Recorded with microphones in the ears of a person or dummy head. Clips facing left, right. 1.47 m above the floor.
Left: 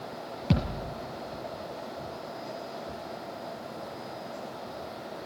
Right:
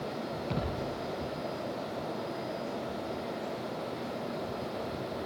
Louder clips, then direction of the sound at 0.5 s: Left 7 dB; 70° left (ahead or behind).